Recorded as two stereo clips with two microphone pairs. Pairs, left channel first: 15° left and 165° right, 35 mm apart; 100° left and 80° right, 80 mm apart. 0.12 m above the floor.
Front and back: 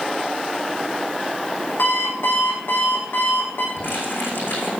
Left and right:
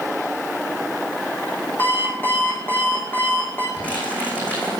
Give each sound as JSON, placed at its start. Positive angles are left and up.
{"t": 1.8, "sound": "an alarm clock", "azimuth_deg": 35, "distance_m": 3.5}
{"t": 3.8, "sound": "crumpling", "azimuth_deg": 30, "distance_m": 5.5}